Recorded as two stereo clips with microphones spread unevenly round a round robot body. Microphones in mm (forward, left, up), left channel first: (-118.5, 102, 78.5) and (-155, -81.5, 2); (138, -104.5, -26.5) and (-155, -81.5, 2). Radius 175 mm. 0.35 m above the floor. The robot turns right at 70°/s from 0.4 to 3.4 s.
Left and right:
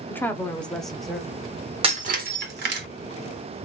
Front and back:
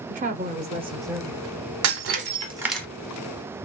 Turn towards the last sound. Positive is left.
turn(degrees=-45)